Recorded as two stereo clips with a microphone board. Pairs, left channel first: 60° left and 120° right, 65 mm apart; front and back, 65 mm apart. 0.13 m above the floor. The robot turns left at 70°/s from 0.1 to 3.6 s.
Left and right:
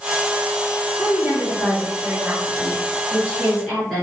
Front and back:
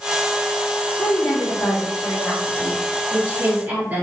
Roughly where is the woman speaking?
Ahead right.